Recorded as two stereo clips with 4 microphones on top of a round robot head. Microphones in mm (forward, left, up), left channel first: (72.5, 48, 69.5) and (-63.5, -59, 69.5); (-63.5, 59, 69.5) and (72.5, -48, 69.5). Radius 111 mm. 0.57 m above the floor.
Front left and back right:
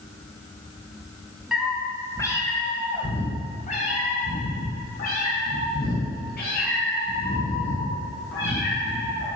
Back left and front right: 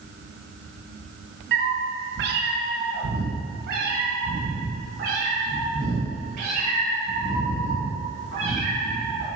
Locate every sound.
1.5 s a cat meowing: 55° right, 1.1 m; by 9.3 s 15° left, 5 m